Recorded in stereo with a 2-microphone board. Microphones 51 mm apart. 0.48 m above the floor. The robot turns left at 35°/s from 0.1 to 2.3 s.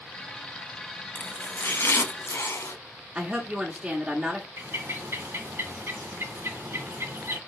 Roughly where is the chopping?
Behind left.